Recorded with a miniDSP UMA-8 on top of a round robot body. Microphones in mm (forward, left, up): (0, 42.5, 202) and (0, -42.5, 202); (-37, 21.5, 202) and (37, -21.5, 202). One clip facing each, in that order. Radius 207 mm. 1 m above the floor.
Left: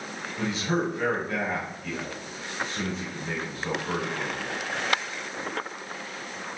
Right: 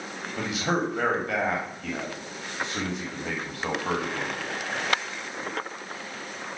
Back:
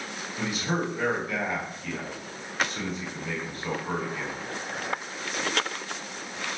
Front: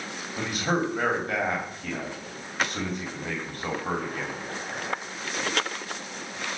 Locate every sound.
0.4 s a man speaking: 75° right, 3 m